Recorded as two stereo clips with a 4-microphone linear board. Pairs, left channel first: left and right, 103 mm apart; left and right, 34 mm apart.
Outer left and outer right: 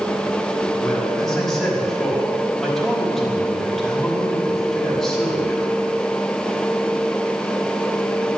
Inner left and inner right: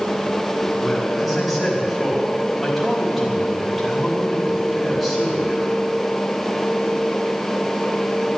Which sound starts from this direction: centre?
A man speaking, at 0.8 s.